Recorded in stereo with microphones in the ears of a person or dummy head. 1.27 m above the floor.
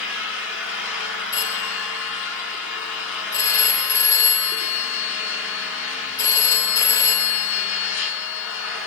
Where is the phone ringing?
20° left (ahead or behind), 9 m.